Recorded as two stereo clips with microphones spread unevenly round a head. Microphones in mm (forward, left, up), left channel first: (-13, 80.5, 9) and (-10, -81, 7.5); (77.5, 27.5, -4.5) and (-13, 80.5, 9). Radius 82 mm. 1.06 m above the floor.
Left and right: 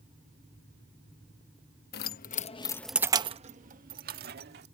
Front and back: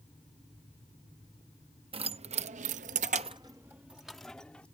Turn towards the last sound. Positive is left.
turn(degrees=-115)